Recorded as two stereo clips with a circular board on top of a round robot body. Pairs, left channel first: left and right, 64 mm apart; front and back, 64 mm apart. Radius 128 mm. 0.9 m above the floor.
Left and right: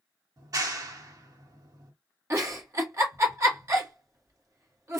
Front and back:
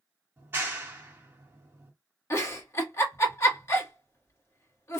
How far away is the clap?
About 1.0 m.